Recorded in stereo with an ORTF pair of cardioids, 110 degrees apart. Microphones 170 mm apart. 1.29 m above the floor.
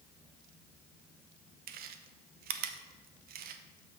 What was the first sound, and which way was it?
Chewing, 65° right.